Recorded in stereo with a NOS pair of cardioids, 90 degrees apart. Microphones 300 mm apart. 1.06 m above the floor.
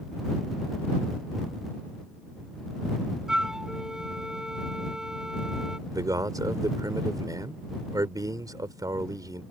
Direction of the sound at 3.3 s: Straight ahead.